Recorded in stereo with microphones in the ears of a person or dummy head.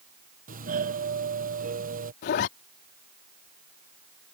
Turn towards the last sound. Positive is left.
turn(degrees=45)  # may be behind; listen again after turning